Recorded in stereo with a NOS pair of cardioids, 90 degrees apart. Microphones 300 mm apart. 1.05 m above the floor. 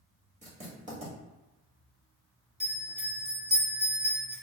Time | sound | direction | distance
0.4 | writing | 25° right | 1.8 m
2.6 | a bell | 20° right | 1.8 m